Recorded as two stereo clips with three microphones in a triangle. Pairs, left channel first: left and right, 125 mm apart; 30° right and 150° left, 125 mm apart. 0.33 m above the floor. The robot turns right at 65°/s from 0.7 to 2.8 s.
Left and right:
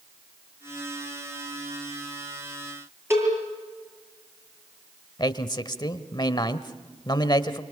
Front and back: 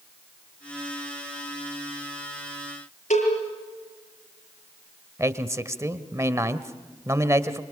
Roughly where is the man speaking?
Left.